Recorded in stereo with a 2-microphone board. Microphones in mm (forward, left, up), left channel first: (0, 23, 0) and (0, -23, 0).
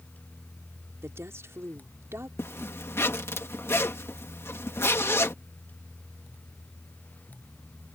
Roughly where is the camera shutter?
I don't hear a camera shutter.